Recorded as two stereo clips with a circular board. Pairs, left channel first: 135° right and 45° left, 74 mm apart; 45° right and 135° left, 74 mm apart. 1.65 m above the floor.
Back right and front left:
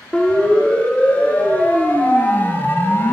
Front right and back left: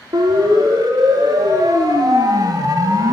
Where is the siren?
150° left, 6 m; by 3.1 s 170° left, 3.5 m.